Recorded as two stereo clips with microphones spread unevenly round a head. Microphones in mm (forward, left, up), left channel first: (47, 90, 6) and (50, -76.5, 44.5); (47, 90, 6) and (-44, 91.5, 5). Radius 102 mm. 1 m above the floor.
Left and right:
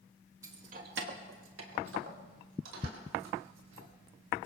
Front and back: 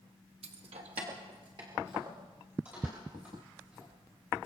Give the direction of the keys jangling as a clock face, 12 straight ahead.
6 o'clock.